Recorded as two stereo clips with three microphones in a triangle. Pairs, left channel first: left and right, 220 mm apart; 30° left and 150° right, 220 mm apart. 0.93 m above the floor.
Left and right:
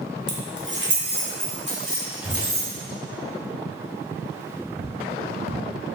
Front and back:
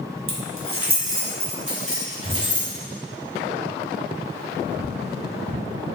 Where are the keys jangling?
130° right, 0.8 m; by 2.7 s 120° right, 2 m.